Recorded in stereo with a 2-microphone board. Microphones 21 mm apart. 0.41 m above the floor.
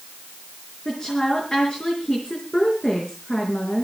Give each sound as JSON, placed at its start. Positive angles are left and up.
{"t": 0.8, "sound": "a woman speaking", "side_deg": 30, "distance_m": 4.5}